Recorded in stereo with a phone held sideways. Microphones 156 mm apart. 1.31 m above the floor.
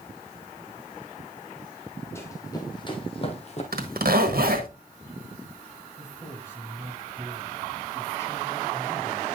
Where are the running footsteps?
15° left (ahead or behind), 2 m; by 3.6 s 45° left (ahead or behind), 1.9 m.